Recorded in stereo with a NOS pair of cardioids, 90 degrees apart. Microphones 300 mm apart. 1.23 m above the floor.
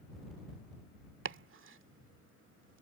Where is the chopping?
45° right.